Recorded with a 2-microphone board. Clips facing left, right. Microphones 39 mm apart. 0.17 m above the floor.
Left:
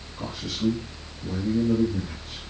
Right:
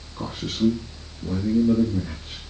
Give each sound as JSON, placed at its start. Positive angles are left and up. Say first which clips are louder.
{"t": 0.2, "sound": "a man speaking", "louder": "right 5 dB", "side_deg": -55, "distance_m": 2.5}